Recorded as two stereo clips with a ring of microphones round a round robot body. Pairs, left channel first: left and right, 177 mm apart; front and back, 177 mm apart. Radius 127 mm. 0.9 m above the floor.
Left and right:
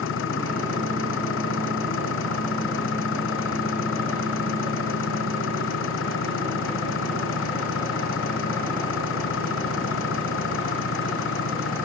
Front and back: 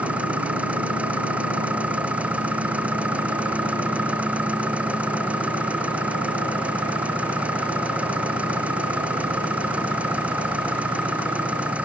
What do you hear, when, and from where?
0.0 s an engine running: 95° left